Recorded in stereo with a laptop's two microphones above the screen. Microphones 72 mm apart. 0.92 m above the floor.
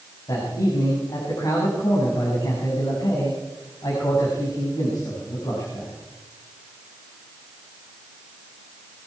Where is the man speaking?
70° left (ahead or behind), 5.5 m.